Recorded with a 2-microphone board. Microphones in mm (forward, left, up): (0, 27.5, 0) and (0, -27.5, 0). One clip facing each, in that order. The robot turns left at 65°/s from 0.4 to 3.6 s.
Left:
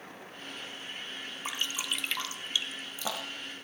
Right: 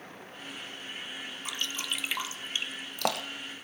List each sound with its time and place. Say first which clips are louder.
1.4 s dripping: left 1 dB; 30° left (ahead or behind), 1.3 m; by 3.5 s 65° right (ahead or behind), 1.3 m